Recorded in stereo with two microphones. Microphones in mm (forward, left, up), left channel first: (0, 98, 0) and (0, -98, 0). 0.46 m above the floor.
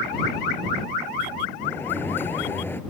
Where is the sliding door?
10° left (ahead or behind).